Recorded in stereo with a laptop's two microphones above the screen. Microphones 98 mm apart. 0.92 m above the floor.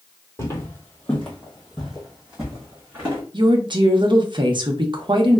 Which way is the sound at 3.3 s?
50° right (ahead or behind).